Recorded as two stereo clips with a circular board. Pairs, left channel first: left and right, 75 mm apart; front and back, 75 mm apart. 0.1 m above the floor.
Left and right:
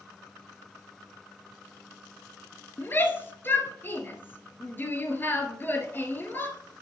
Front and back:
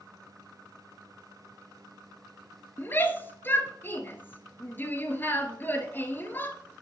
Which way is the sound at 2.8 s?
45° left.